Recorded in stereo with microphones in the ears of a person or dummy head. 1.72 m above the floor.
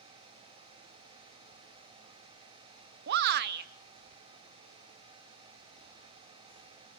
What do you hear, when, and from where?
3.1 s a shout: 60° right (ahead or behind), 1.0 m